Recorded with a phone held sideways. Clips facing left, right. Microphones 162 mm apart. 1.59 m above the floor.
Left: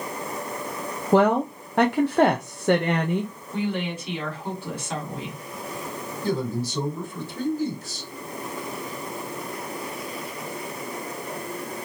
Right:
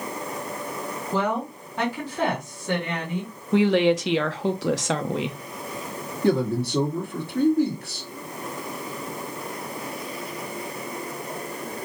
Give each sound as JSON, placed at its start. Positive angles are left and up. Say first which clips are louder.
{"t": 1.1, "sound": "a woman speaking", "louder": "left 8 dB", "side_deg": 60, "distance_m": 0.7}
{"t": 3.5, "sound": "a woman speaking", "louder": "right 10 dB", "side_deg": -80, "distance_m": 0.8}
{"t": 6.2, "sound": "a man speaking", "louder": "right 5 dB", "side_deg": -60, "distance_m": 1.6}